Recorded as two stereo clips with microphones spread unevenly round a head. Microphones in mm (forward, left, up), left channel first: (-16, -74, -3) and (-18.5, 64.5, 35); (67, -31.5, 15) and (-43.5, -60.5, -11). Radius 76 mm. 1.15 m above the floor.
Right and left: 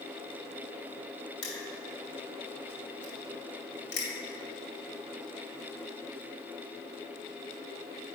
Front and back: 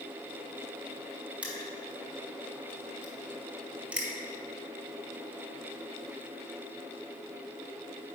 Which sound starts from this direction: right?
Crushing, at 1.4 s.